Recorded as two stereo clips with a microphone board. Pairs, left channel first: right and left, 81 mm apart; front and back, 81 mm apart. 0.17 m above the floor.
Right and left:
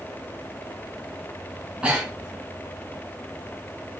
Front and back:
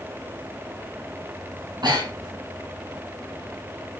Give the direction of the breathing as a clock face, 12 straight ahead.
7 o'clock.